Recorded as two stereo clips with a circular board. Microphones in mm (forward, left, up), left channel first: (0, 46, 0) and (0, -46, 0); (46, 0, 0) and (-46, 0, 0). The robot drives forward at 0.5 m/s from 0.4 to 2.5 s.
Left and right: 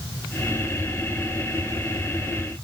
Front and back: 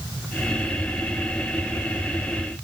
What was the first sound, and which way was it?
Only background noise.